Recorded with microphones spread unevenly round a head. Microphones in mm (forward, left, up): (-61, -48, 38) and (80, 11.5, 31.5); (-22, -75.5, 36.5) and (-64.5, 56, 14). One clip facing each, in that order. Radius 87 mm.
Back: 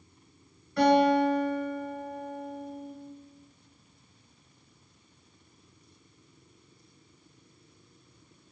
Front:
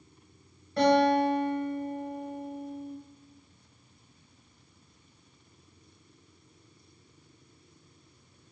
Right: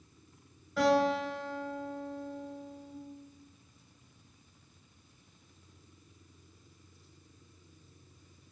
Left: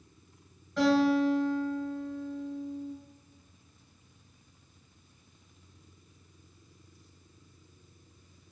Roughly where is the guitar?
Ahead.